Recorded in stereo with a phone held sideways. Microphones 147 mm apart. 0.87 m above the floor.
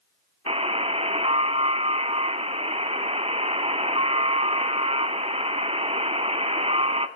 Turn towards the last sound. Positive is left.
turn(degrees=-40)  # may be behind; listen again after turning